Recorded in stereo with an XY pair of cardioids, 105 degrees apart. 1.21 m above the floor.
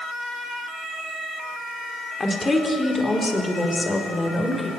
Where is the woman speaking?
25° left, 4 m; by 4.7 s 20° left, 6 m.